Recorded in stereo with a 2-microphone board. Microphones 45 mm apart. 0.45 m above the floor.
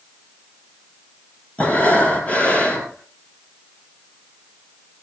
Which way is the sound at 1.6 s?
25° left (ahead or behind).